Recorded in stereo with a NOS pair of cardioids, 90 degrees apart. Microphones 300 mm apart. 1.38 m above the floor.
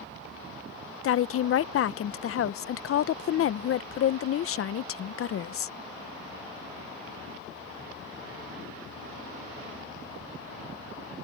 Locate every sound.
1.0 s a woman speaking: 50° left